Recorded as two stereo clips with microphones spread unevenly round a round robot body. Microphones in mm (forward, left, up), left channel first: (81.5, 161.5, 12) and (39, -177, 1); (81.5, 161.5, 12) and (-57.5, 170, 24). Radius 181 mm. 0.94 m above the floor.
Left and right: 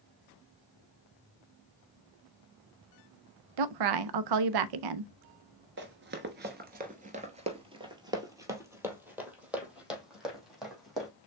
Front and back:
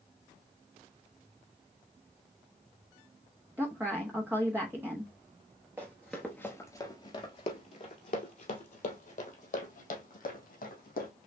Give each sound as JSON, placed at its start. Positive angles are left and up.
{"t": 3.6, "sound": "a woman speaking", "azimuth_deg": -100, "distance_m": 0.6}
{"t": 5.8, "sound": "running footsteps", "azimuth_deg": -125, "distance_m": 1.0}